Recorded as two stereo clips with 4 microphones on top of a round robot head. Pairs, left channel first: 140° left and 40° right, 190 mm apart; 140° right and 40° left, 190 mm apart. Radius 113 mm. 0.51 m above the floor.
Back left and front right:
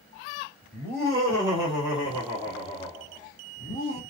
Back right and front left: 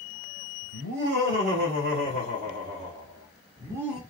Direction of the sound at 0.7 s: 60° left.